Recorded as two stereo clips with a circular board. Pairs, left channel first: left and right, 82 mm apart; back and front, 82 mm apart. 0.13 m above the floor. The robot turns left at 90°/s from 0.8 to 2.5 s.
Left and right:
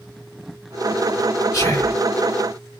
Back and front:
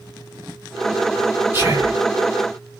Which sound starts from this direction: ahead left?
Whispering, at 1.5 s.